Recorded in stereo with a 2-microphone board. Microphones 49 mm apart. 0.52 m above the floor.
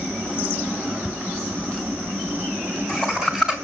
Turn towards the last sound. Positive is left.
turn(degrees=-15)  # may be behind; listen again after turning